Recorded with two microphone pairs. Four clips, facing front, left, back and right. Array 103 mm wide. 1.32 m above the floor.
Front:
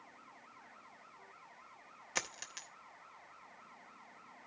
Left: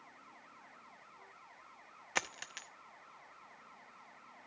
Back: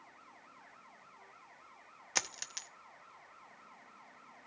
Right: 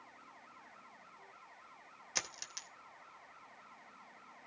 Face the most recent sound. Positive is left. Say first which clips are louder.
# left 7 dB, back 2 dB
turn(degrees=110)